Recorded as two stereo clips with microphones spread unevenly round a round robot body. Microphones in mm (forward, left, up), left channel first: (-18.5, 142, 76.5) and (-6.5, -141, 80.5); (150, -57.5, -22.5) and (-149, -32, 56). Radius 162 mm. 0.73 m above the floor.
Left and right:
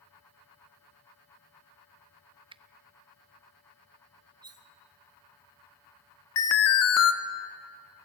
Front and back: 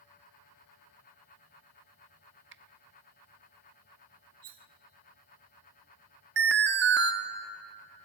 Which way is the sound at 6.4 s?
115° left.